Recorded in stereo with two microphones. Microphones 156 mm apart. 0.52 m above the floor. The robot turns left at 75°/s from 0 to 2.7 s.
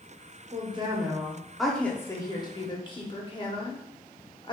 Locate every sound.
0.5 s a woman speaking: 95° right, 0.8 m; by 4.5 s 100° left, 0.8 m